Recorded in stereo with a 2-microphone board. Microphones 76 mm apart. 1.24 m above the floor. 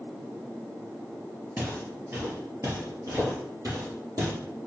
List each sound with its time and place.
1.6 s footsteps: 20° right (ahead or behind), 1.5 m; by 4.3 s 60° right (ahead or behind), 2.5 m